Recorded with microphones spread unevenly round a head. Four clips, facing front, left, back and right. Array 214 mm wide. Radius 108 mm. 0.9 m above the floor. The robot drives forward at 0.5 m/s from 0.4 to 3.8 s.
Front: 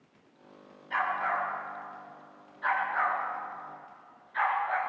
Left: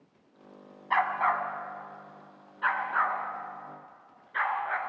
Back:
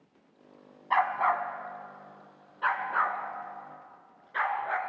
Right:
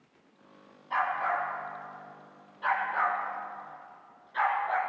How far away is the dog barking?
About 1.5 m.